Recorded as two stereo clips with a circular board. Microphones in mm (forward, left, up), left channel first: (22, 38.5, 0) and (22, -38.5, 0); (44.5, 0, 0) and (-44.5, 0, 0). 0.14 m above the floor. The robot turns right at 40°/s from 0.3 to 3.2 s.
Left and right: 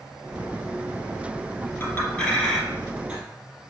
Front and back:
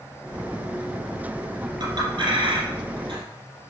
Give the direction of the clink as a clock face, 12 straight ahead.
7 o'clock.